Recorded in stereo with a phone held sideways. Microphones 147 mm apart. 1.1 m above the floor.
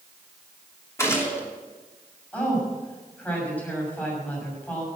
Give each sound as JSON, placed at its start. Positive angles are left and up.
{"t": 1.0, "sound": "a gunshot", "side_deg": 20, "distance_m": 3.0}
{"t": 2.3, "sound": "a woman speaking", "side_deg": 10, "distance_m": 6.0}